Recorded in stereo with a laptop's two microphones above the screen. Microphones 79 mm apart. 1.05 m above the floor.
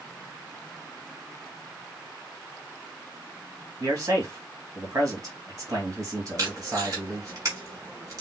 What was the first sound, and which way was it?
A man speaking, 40° right (ahead or behind).